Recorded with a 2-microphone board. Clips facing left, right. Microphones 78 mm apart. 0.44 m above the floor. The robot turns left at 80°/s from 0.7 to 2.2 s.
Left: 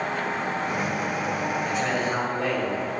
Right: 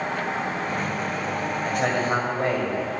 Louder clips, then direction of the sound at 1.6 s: Right 2 dB; 95° right.